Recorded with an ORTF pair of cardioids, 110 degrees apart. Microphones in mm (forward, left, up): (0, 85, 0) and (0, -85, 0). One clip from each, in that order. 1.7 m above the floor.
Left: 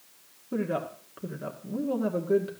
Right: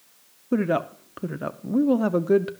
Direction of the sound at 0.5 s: 50° right.